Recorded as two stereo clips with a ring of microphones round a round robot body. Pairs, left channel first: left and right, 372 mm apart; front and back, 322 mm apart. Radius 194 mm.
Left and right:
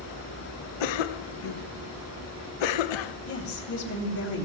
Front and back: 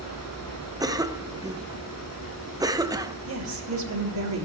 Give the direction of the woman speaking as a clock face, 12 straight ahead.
7 o'clock.